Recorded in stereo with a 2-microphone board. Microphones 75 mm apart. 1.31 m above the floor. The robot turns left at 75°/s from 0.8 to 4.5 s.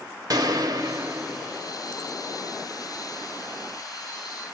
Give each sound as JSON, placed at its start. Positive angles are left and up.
{"t": 0.3, "sound": "a gunshot", "azimuth_deg": -125, "distance_m": 0.8}